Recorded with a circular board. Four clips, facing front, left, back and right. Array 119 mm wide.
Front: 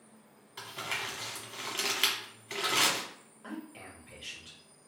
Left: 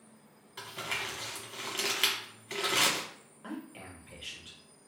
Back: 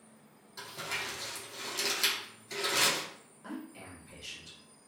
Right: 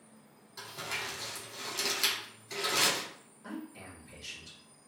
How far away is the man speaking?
About 0.8 m.